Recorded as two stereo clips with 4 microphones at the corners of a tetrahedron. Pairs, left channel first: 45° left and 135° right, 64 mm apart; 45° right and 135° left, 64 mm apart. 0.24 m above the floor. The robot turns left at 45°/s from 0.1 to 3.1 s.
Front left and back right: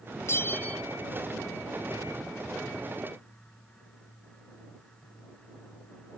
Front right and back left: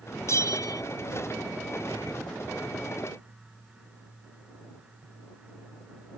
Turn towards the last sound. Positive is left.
turn(degrees=-130)